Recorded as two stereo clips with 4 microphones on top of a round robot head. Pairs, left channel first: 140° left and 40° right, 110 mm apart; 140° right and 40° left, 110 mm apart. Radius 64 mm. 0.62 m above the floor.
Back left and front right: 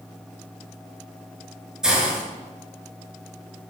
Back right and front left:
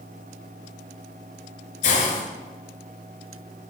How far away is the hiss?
About 9 m.